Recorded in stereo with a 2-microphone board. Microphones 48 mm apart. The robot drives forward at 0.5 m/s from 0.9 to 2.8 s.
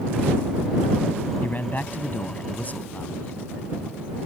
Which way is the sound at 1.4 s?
40° left (ahead or behind).